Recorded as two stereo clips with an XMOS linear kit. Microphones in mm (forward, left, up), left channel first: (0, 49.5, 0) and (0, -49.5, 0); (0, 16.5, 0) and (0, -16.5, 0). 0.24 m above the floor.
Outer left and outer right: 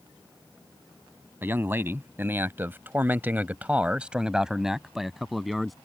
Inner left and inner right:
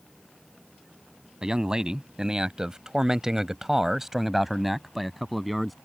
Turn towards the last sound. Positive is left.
turn(degrees=0)  # may be behind; listen again after turning